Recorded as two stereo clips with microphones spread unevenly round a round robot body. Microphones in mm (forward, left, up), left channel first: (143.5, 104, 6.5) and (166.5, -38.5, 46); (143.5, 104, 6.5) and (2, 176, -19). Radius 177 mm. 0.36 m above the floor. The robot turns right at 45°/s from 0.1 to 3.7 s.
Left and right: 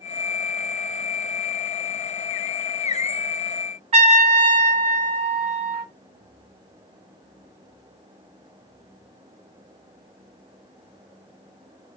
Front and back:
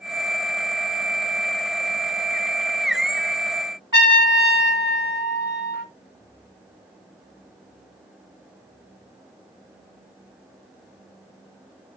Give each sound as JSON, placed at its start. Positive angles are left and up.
{"t": 3.9, "sound": "a trumpet", "azimuth_deg": -145, "distance_m": 1.1}